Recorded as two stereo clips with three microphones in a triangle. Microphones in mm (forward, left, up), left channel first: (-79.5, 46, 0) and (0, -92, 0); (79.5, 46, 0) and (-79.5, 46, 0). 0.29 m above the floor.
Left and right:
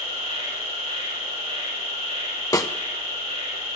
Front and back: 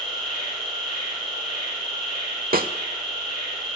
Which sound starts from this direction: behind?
A snare drum, at 2.5 s.